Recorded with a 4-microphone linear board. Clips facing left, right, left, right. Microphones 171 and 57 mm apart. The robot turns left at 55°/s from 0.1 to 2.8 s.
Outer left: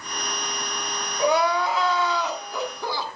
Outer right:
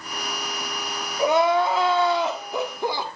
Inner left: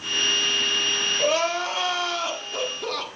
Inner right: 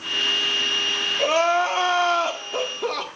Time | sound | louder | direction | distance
1.2 | crying | outer right 2 dB, inner right 5 dB | 20° right (ahead or behind) | 1.3 m